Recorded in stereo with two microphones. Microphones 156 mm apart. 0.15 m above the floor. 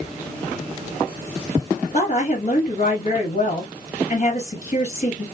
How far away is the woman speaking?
About 2.5 m.